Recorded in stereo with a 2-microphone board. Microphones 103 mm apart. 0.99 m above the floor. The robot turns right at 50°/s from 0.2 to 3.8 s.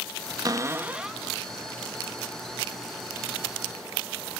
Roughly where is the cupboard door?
Ahead right.